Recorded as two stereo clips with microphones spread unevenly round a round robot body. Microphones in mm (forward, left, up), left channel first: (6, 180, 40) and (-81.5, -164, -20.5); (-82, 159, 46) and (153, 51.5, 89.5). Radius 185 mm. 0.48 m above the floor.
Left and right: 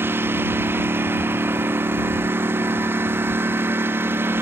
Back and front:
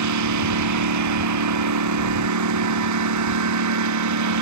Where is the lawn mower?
20° right.